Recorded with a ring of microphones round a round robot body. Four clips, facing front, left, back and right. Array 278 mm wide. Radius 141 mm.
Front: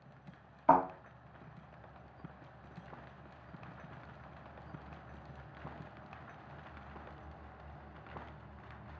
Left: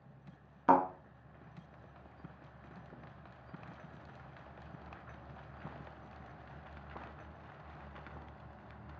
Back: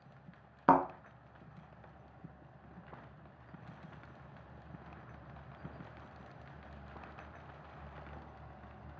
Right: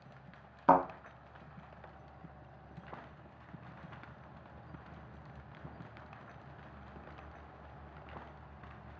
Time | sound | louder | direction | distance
0.7 | a thud | right 1 dB, even | 170° right | 0.8 m